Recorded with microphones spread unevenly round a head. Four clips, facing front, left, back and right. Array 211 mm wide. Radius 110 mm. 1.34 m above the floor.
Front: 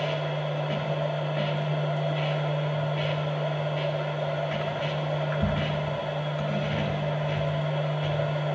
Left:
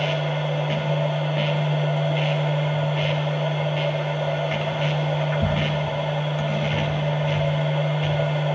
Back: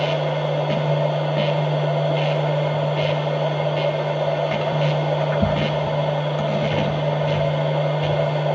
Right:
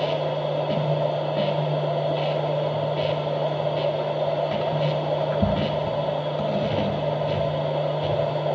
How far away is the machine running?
About 2 m.